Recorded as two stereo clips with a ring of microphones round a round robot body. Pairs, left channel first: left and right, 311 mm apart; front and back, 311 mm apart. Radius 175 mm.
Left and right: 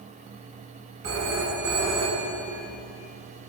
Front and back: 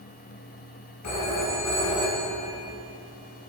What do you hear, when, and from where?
1.0 s a phone ringing: 45° right, 2 m